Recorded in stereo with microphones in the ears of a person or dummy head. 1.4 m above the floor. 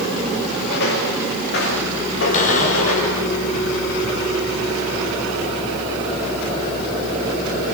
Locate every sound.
0.7 s footsteps: 65° left (ahead or behind), 7 m; by 3.2 s 75° left (ahead or behind), 9 m
2.3 s a cupboard door: 45° left (ahead or behind), 3 m